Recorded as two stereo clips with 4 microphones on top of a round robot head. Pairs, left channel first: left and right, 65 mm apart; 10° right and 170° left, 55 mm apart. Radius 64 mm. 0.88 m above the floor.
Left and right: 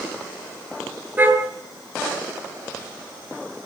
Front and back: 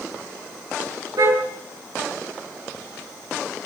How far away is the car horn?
About 9 m.